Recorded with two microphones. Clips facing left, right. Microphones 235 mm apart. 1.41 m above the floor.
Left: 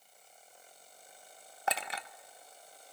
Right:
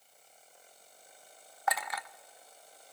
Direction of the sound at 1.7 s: 30° left (ahead or behind).